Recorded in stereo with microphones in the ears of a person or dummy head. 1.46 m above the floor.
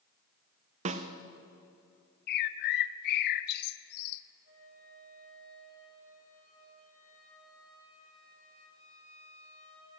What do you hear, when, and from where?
0.8 s a snare drum: 40° right (ahead or behind), 0.6 m
2.3 s a bird: 60° left (ahead or behind), 0.6 m
4.5 s a flute: 65° right (ahead or behind), 3.5 m